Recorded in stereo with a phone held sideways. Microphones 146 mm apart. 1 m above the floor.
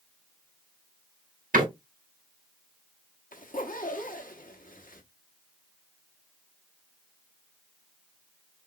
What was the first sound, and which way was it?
A door slam, 85° right.